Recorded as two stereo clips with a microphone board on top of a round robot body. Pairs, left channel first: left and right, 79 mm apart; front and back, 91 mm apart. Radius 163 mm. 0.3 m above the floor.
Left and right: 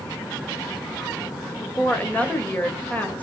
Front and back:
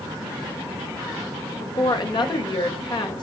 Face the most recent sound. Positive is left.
turn(degrees=20)